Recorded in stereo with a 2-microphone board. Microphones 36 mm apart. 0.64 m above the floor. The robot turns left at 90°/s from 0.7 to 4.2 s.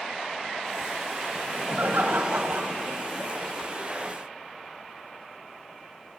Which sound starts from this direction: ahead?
Laughter, at 1.4 s.